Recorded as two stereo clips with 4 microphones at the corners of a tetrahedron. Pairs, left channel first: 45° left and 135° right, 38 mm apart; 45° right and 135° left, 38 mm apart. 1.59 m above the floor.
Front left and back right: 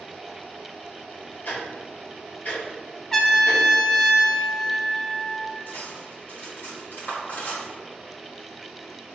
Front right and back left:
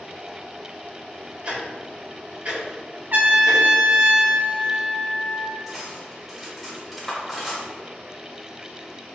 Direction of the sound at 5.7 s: 45° left.